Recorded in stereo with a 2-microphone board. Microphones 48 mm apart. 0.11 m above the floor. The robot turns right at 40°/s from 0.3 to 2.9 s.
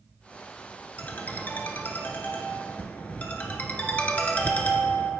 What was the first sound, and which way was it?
A ringtone, 50° left.